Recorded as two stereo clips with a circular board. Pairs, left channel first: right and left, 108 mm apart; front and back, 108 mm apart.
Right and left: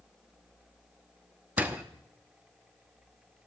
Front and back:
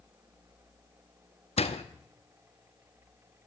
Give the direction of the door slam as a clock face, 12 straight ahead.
12 o'clock.